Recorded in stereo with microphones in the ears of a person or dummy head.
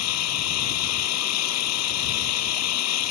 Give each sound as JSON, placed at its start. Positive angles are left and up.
{"t": 0.0, "sound": "an engine running", "side_deg": 85}